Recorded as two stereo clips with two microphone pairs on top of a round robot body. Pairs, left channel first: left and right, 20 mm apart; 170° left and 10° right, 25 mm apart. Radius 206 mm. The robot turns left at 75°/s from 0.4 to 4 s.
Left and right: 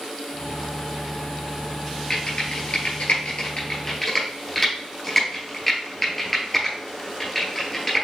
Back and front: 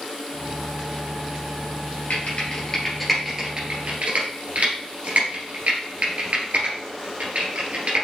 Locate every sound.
2.1 s typing on a keyboard: 155° left, 2 m; by 8.1 s 10° left, 2 m